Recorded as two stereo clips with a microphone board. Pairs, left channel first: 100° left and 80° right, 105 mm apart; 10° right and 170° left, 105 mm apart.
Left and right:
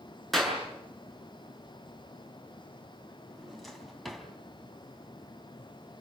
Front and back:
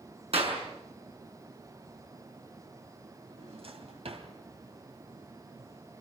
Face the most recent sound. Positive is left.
turn(degrees=-170)